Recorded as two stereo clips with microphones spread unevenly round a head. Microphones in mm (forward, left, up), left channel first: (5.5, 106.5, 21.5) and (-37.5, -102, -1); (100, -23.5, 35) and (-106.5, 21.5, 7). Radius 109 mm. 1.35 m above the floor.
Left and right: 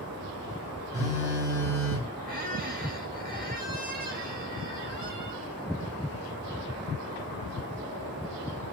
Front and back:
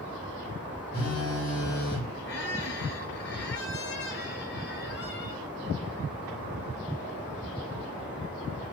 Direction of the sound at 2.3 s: 50° right.